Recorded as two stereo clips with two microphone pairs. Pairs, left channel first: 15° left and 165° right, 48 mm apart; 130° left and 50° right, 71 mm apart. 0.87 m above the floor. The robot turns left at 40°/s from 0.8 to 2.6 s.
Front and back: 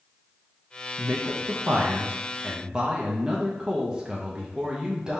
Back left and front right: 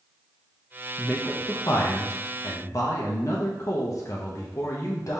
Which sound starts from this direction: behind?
A man speaking, at 1.0 s.